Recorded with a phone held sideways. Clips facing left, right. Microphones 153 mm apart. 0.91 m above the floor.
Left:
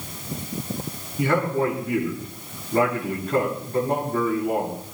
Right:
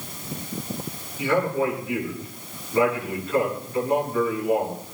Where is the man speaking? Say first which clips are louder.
Left 1 dB; 50° left (ahead or behind), 8 m.